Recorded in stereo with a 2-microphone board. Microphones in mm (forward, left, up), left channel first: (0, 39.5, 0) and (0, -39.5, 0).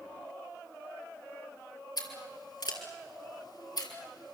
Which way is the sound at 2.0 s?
70° left (ahead or behind).